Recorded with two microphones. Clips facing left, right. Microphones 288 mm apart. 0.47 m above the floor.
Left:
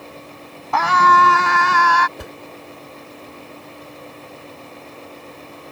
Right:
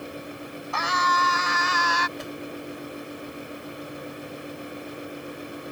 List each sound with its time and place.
0.7 s a scream: 75° left (ahead or behind); by 2.1 s 70° left (ahead or behind)
2.2 s a whoosh: 65° left (ahead or behind)